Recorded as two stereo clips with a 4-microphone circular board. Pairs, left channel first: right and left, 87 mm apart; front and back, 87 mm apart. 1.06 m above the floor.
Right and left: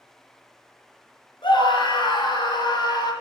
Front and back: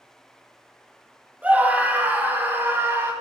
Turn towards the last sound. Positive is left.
turn(degrees=-120)